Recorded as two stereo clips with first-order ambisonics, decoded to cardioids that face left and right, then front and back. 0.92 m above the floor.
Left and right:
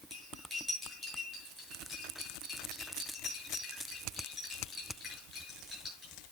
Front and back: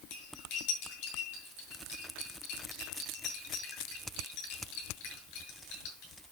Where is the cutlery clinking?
Straight ahead, 8 m.